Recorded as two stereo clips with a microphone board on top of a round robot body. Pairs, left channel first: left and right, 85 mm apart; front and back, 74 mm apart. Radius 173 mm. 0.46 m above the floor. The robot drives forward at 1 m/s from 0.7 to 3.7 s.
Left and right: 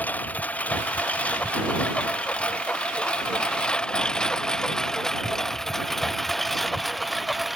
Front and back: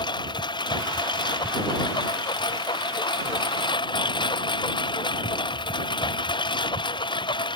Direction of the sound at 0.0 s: 15° left.